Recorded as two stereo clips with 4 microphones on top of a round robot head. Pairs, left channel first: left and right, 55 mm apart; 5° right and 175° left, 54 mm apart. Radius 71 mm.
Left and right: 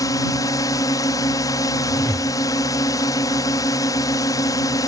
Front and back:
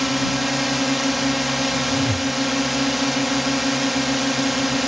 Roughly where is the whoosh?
Behind.